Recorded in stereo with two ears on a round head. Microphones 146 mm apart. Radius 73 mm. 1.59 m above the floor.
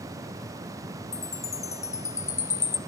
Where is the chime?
20° left (ahead or behind), 0.9 m.